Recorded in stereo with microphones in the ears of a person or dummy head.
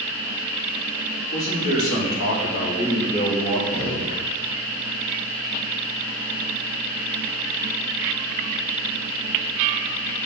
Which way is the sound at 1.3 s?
80° left.